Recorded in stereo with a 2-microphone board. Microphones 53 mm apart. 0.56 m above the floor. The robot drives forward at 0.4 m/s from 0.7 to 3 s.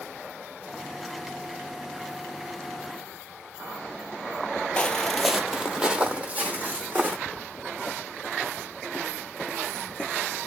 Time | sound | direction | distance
4.8 | footsteps | 20° left (ahead or behind) | 0.8 m
7.3 | footsteps | 15° left (ahead or behind) | 0.7 m